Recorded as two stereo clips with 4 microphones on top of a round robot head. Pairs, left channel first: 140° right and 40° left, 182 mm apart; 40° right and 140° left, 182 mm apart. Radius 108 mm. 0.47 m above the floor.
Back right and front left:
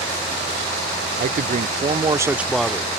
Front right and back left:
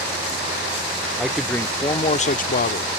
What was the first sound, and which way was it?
A man speaking, 55° left.